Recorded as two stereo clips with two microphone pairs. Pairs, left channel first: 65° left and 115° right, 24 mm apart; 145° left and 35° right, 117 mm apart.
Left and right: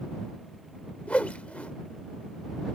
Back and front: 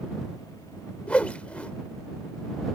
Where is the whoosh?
70° left.